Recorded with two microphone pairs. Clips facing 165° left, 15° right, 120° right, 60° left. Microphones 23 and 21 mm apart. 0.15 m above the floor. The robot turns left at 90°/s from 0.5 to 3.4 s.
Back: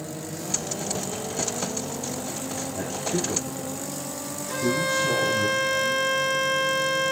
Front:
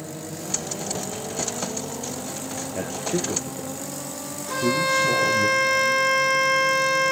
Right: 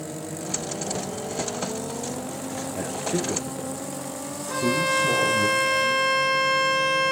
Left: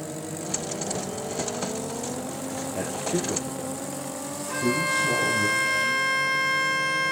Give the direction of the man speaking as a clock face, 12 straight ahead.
12 o'clock.